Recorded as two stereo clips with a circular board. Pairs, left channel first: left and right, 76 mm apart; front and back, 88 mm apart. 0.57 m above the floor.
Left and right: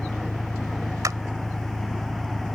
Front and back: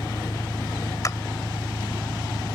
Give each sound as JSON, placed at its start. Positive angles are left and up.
{"t": 0.0, "sound": "an engine running", "azimuth_deg": 20}
{"t": 1.0, "sound": "a clap", "azimuth_deg": -50}